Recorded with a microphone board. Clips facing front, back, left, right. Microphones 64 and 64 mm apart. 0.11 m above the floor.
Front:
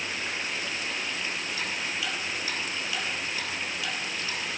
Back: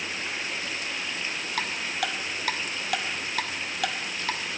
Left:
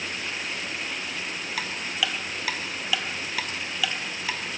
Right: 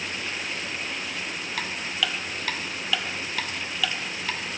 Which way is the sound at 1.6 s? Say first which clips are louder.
Back 2 dB, even; 175° left.